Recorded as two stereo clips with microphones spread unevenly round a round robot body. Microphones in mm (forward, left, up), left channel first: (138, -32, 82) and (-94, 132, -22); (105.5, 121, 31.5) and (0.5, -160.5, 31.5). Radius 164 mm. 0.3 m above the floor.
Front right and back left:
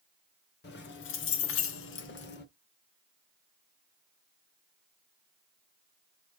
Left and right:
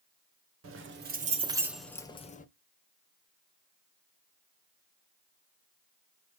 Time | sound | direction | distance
0.6 | keys jangling | 100° right | 1.0 m